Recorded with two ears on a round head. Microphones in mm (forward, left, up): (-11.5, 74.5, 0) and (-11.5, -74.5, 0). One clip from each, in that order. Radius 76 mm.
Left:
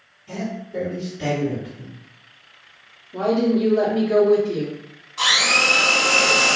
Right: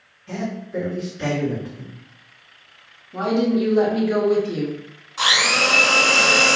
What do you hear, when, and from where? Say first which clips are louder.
0.3 s a man speaking: right 1 dB; 15° right (ahead or behind), 1.7 m
3.1 s a woman speaking: left 1 dB; 30° right (ahead or behind), 0.8 m
5.2 s a blender: even; 10° right (ahead or behind), 1.1 m